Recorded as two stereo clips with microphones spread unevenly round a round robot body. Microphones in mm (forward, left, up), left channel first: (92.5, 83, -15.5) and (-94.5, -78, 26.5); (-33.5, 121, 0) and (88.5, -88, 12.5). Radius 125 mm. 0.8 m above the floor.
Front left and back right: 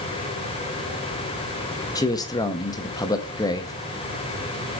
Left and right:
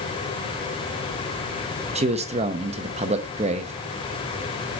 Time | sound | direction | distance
1.9 | a man speaking | 10° right | 0.8 m